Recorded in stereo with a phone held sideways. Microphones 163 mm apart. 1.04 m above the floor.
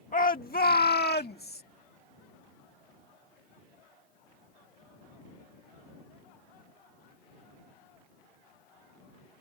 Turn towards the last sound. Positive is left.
turn(degrees=75)  # may be behind; listen again after turning